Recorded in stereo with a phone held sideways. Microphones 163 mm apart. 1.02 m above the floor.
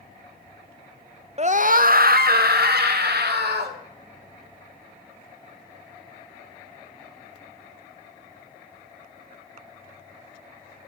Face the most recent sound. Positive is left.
turn(degrees=-80)